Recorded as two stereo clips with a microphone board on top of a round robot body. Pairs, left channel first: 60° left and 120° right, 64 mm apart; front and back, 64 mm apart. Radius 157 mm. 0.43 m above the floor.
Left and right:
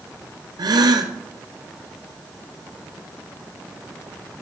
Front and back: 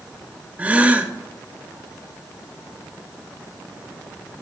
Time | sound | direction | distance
0.6 | a gasp | 110° right | 0.9 m